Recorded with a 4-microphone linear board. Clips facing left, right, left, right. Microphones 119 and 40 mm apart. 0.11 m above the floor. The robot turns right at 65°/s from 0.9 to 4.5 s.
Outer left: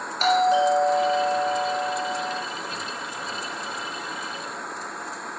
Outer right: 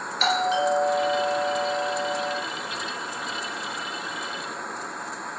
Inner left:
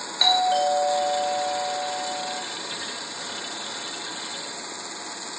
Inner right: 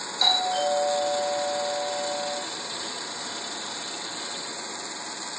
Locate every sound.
0.2 s a doorbell: 110° left, 2 m; by 2.4 s 155° right, 2 m